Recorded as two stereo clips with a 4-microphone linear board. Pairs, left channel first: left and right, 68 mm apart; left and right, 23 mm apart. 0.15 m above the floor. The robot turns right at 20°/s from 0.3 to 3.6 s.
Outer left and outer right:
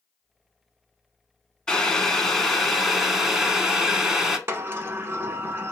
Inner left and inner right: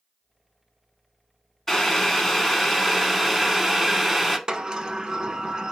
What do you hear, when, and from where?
1.7 s boiling: 15° left (ahead or behind), 0.7 m; by 4.4 s 5° right (ahead or behind), 0.7 m
4.5 s a sliding door: 40° right (ahead or behind), 0.5 m